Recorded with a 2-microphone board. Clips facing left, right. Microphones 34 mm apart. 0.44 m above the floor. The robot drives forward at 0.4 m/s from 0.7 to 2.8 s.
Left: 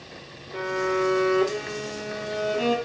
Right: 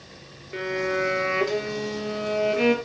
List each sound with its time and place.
0.5 s a violin: 50° right (ahead or behind), 4.5 m; by 2.8 s 60° right (ahead or behind), 4 m